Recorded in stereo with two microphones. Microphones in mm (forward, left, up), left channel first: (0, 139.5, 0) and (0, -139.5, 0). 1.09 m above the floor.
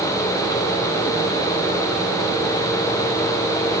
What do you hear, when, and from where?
Only background noise.